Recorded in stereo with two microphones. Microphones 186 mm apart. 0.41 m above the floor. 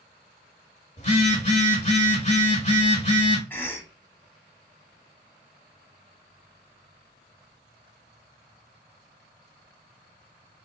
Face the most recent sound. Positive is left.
turn(degrees=10)  # may be behind; listen again after turning